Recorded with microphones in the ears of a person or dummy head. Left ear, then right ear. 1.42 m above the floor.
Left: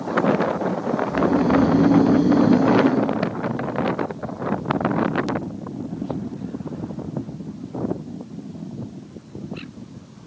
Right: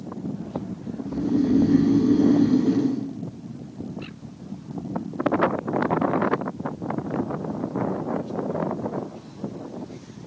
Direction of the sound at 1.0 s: 45° right (ahead or behind).